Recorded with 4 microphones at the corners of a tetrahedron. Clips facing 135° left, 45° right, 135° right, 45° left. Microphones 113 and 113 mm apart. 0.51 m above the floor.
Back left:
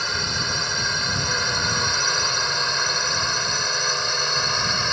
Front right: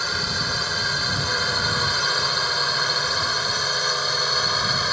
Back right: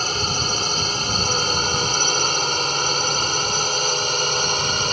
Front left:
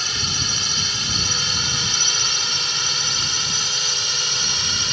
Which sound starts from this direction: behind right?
A drone, at 0.0 s.